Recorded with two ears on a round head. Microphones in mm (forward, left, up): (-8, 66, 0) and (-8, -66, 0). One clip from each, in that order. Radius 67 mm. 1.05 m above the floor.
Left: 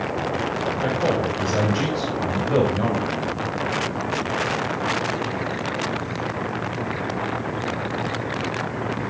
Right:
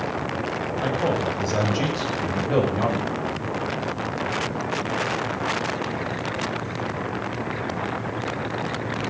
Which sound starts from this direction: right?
A man speaking, at 0.8 s.